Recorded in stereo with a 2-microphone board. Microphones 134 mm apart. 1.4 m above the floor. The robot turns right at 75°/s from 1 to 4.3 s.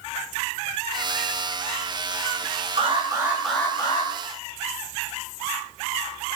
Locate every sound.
2.8 s an alarm: 50° right, 10 m; by 4.1 s 50° left, 10 m